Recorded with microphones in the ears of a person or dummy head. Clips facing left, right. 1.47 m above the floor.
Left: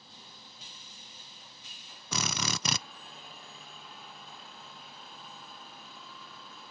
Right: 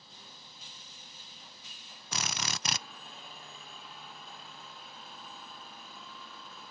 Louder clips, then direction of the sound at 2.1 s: Left 4 dB; 70° left (ahead or behind).